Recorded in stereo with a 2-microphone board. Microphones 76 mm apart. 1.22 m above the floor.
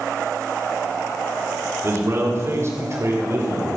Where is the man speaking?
40° right (ahead or behind), 3 m.